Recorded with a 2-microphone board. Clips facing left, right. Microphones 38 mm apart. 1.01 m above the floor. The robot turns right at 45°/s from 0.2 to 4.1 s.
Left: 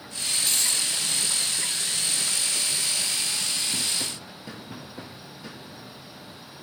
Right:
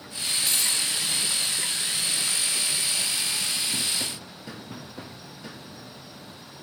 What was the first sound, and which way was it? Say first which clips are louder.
A dropped coin: even; 10° right (ahead or behind).